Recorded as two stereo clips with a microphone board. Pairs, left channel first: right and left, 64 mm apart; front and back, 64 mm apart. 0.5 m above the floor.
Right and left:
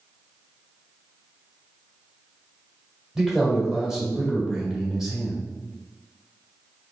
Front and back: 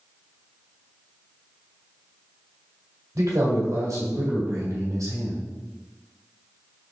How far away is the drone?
I don't hear a drone.